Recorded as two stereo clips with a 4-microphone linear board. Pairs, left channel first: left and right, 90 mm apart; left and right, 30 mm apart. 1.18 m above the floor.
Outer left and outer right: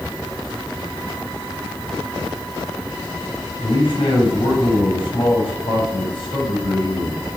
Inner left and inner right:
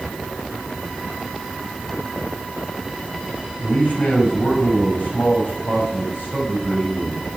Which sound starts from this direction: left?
A man speaking, at 3.6 s.